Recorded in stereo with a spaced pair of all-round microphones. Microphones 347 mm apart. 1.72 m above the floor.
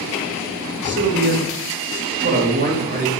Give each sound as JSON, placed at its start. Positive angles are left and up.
{"t": 0.8, "sound": "a man speaking", "side_deg": -35, "distance_m": 3.5}